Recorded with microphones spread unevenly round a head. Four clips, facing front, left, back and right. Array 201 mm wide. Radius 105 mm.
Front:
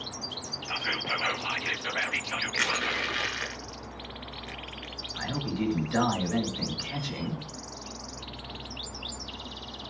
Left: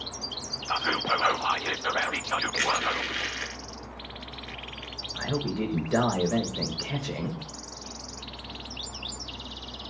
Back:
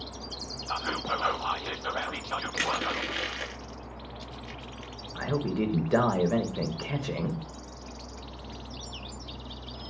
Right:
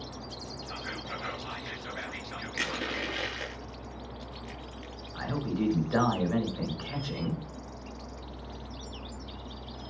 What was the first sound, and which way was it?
Whispering, 100° left.